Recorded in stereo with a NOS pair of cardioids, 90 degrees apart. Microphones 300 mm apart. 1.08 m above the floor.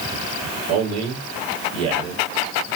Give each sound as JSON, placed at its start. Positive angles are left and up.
{"t": 0.7, "sound": "a man speaking", "azimuth_deg": -60, "distance_m": 2.5}